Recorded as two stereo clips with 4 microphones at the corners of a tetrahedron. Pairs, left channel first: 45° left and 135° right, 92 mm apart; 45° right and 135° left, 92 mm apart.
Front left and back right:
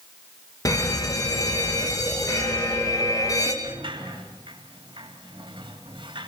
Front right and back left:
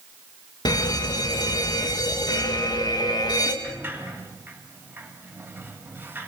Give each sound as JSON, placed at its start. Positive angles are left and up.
{"t": 0.7, "sound": "a fire alarm", "azimuth_deg": -5, "distance_m": 2.5}
{"t": 3.6, "sound": "a sliding door", "azimuth_deg": -160, "distance_m": 3.0}